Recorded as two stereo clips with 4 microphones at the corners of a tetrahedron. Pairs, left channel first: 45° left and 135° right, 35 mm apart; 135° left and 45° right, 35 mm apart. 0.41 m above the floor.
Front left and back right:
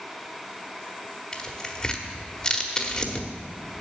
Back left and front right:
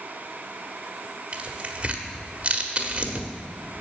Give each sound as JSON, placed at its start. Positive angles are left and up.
{"t": 1.3, "sound": "tearing paper", "azimuth_deg": -15, "distance_m": 1.2}